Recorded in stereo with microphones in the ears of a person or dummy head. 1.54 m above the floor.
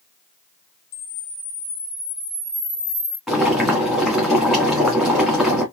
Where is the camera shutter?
80° left, 1.7 m.